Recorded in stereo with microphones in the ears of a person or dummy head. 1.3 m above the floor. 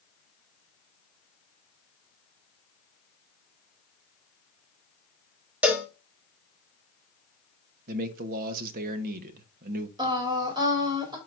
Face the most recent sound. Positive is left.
turn(degrees=-25)  # may be behind; listen again after turning